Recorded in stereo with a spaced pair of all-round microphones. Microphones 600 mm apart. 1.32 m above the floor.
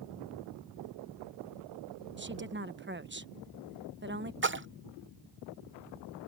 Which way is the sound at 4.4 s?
20° right (ahead or behind).